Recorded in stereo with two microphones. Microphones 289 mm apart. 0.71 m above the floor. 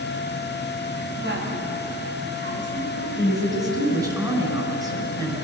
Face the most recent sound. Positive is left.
turn(degrees=-15)  # may be behind; listen again after turning